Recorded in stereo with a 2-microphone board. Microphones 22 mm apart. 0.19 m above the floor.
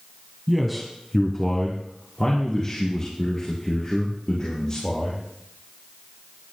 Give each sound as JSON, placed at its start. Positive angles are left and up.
{"t": 0.5, "sound": "a man speaking", "side_deg": -5, "distance_m": 1.1}